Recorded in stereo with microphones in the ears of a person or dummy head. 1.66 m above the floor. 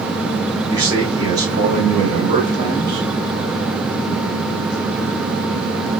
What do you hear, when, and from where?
0.7 s a man speaking: 15° right (ahead or behind), 0.8 m